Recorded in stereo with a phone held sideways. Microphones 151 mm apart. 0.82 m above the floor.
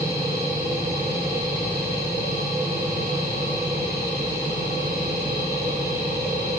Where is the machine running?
20° right (ahead or behind), 0.7 m.